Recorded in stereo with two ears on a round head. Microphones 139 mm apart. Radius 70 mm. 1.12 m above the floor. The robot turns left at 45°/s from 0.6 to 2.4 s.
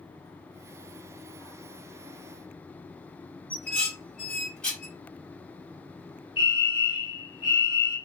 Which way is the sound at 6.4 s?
30° left (ahead or behind).